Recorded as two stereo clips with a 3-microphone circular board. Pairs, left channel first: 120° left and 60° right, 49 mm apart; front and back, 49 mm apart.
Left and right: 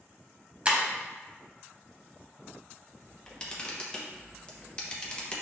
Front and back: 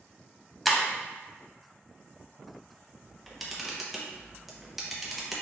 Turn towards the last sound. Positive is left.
turn(degrees=95)